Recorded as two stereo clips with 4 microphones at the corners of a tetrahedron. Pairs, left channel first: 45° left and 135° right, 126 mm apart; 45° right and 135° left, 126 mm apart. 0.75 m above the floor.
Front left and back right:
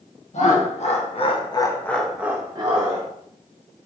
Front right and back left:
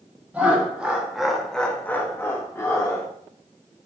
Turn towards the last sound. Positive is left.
turn(degrees=-105)